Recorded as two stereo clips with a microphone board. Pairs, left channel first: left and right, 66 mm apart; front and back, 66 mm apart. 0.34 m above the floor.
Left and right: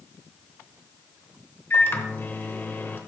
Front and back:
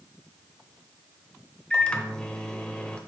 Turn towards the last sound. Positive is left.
turn(degrees=65)